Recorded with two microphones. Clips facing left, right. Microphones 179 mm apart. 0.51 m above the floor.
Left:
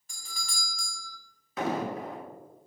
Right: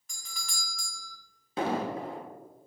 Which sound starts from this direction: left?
A doorbell, at 0.1 s.